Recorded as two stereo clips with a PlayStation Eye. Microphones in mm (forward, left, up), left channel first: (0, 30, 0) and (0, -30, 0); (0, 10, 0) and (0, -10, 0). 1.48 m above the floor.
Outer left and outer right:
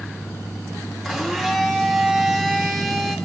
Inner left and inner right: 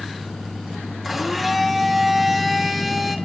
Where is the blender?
Centre (ahead or behind), 2.5 m.